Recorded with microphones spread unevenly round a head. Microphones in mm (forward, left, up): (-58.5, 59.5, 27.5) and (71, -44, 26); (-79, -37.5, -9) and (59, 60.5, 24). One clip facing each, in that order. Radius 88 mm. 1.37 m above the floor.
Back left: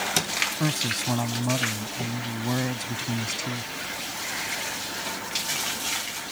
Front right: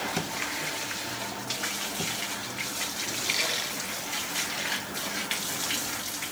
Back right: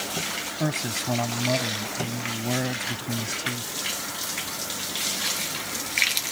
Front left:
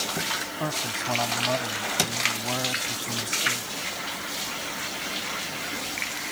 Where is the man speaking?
150° left.